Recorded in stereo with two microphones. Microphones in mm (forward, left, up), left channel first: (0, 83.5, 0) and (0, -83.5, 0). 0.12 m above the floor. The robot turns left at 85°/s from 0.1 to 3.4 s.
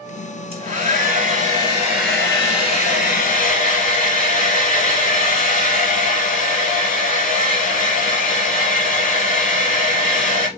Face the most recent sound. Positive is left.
turn(degrees=70)